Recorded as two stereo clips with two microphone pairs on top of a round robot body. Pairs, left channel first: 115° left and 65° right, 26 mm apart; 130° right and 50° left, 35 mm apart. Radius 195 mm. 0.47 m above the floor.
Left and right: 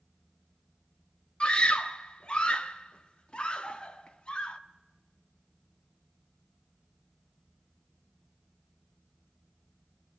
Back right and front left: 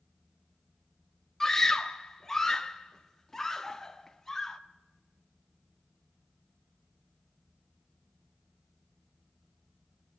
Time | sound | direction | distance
1.4 | a scream | 155° left | 1.6 m